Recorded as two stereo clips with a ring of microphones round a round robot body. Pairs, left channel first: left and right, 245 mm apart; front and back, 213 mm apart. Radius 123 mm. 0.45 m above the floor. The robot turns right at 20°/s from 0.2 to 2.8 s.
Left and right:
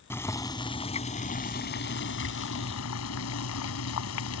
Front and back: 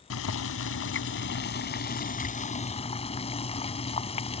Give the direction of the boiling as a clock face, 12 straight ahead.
12 o'clock.